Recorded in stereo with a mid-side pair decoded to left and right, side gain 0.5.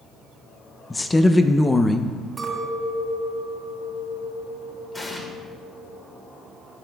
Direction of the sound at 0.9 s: 20° left.